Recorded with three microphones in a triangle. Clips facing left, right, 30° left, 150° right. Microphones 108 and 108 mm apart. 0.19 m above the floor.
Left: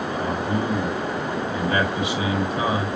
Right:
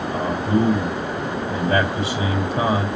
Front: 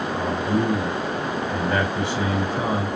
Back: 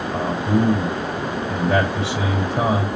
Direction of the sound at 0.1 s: 145° right.